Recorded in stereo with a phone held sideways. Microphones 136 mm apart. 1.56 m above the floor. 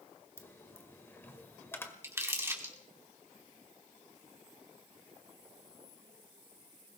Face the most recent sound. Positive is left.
turn(degrees=-20)  # may be behind; listen again after turning